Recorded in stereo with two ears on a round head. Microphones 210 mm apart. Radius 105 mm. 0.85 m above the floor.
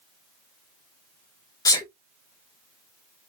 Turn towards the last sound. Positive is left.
turn(degrees=15)  # may be behind; listen again after turning